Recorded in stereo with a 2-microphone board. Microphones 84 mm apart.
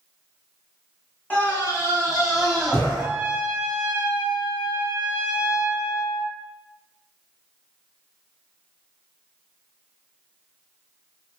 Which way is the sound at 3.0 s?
25° right (ahead or behind).